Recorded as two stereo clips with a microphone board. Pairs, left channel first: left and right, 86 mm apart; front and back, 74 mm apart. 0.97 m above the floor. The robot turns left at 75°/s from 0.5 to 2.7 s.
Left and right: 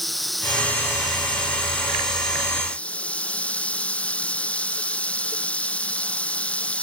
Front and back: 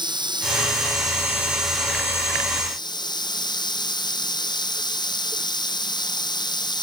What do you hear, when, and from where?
0.0 s running water: straight behind; by 6.8 s 15° left